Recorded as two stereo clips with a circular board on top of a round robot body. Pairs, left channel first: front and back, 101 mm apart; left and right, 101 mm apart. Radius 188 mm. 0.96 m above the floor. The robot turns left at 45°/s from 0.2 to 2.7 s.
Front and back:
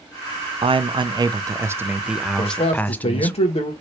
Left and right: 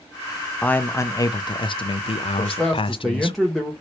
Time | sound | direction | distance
0.6 | a man speaking | 165° left | 0.6 m
2.4 | a man speaking | 15° left | 0.7 m